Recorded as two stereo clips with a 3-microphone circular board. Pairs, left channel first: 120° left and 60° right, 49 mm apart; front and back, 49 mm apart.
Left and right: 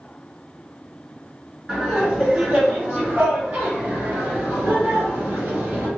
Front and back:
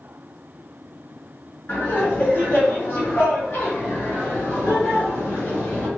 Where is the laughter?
Straight ahead, 1.4 m; by 5.9 s 35° right, 3 m.